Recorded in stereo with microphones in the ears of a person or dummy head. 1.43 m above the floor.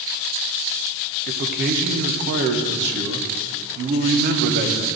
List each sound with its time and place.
1.3 s a man speaking: 55° right (ahead or behind), 0.7 m